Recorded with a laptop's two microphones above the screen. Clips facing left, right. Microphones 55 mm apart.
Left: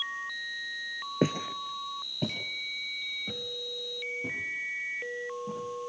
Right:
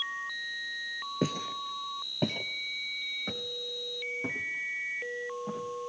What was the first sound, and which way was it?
Footsteps, 35° left (ahead or behind).